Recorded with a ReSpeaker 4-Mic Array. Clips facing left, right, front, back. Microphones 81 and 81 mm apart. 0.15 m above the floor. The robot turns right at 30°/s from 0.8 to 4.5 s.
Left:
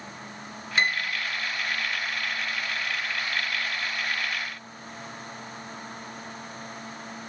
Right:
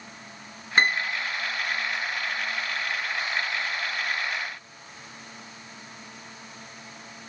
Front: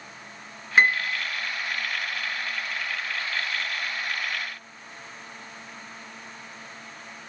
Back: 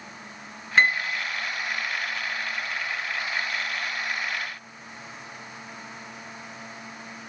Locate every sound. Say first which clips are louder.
0.8 s a piano: right 3 dB, front 1 dB; 80° right, 0.9 m; by 1.2 s 65° right, 0.9 m